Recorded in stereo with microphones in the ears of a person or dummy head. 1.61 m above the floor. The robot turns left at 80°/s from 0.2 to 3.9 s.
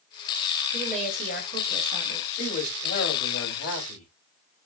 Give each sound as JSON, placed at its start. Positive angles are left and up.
{"t": 0.7, "sound": "a woman speaking", "azimuth_deg": -30, "distance_m": 1.3}
{"t": 2.3, "sound": "a man speaking", "azimuth_deg": 160, "distance_m": 1.7}